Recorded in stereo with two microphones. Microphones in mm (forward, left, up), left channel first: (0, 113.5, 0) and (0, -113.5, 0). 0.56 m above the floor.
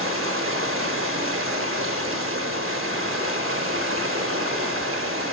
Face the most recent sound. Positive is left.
turn(degrees=-65)  # may be behind; listen again after turning